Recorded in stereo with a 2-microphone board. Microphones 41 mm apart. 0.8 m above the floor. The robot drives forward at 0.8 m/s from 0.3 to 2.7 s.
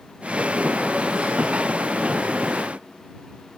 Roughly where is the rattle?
I don't hear a rattle.